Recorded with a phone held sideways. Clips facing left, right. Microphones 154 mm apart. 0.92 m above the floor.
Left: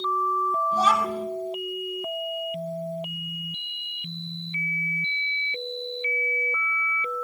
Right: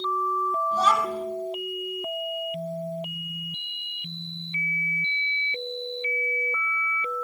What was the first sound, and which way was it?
A child speaking, 5° left (ahead or behind).